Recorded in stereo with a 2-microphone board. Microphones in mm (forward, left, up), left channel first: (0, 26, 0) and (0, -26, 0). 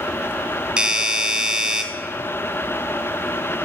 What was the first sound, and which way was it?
A doorbell, 20° right (ahead or behind).